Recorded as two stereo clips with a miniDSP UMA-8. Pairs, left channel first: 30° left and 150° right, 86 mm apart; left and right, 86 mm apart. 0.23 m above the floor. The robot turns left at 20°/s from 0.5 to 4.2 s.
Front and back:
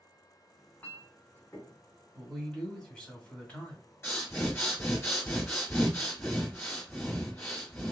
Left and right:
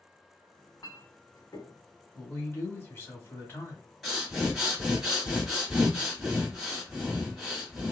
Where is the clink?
95° left, 1.4 m; by 1.8 s 80° left, 1.4 m.